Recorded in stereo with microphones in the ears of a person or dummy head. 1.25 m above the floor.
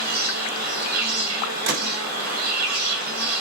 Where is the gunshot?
55° right (ahead or behind), 0.7 m.